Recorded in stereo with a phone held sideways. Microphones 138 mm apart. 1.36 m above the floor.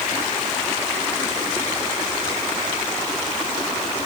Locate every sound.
Only background noise.